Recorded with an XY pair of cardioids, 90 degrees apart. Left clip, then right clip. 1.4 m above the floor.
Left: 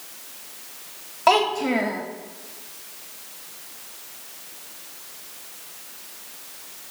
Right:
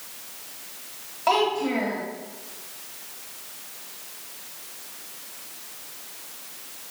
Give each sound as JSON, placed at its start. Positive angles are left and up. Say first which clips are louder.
{"t": 1.3, "sound": "a child speaking", "louder": "left 3 dB", "azimuth_deg": 50, "distance_m": 1.3}